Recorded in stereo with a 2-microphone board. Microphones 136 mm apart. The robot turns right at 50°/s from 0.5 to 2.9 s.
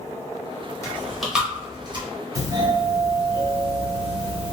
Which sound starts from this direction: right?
A doorbell, at 2.4 s.